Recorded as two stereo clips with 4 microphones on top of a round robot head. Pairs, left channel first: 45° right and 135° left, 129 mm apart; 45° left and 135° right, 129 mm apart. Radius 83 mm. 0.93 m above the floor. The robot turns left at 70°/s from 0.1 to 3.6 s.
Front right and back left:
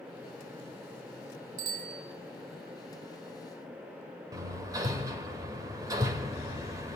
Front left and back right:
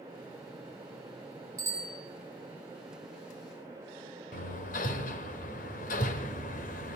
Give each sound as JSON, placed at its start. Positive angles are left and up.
{"t": 1.6, "sound": "a bicycle bell", "azimuth_deg": 160, "distance_m": 5.0}
{"t": 4.3, "sound": "hammering", "azimuth_deg": 65, "distance_m": 1.6}